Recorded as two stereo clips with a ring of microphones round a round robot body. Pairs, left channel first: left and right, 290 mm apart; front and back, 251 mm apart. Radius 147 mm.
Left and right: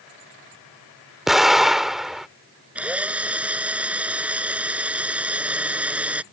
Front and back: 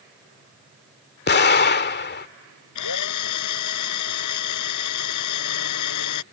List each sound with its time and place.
1.3 s an explosion: straight ahead
2.8 s a drill: 5° right